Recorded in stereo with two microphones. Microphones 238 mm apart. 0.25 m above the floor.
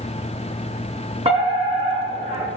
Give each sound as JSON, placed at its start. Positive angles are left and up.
{"t": 1.2, "sound": "a fire alarm", "side_deg": -25, "distance_m": 5.0}